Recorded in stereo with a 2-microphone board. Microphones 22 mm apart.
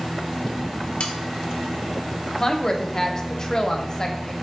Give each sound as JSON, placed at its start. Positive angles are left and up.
{"t": 1.0, "sound": "sawing", "side_deg": 65, "distance_m": 0.6}
{"t": 2.4, "sound": "a woman speaking", "side_deg": 25, "distance_m": 0.7}